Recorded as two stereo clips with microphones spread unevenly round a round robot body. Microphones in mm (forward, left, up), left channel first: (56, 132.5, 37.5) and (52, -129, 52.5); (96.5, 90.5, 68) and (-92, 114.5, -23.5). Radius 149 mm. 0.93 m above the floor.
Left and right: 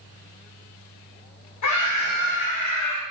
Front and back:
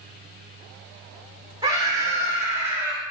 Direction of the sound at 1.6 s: 105° left.